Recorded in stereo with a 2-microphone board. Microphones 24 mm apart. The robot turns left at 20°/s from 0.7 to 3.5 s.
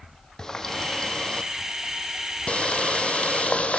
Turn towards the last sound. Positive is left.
turn(degrees=95)